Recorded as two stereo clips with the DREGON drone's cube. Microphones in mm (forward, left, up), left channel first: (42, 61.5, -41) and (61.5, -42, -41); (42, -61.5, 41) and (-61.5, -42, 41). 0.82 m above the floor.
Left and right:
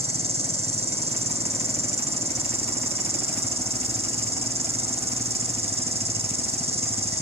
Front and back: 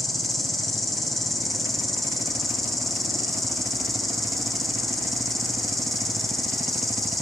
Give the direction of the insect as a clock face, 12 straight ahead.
3 o'clock.